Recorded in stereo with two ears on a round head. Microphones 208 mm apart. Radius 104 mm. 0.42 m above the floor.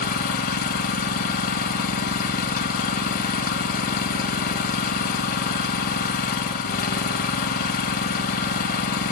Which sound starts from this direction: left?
An engine running, at 0.0 s.